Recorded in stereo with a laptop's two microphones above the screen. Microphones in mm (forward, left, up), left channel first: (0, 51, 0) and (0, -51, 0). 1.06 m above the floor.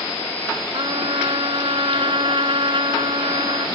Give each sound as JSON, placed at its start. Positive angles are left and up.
{"t": 0.7, "sound": "a trumpet", "side_deg": -55}